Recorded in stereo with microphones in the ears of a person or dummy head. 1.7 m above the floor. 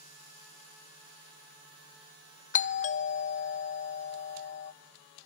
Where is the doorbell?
35° left (ahead or behind), 0.7 m.